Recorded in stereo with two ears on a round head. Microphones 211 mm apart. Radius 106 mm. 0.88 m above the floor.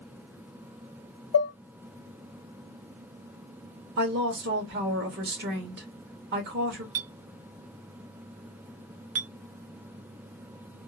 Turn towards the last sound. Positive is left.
turn(degrees=-65)  # may be behind; listen again after turning